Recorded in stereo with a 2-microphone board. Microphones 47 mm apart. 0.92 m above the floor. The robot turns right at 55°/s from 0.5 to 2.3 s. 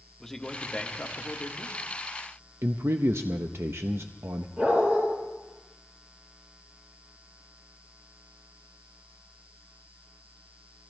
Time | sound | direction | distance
0.2 | a man speaking | 10° left | 1.3 m
2.6 | a man speaking | 65° right (ahead or behind) | 0.6 m
4.6 | a dog barking | 35° right (ahead or behind) | 8 m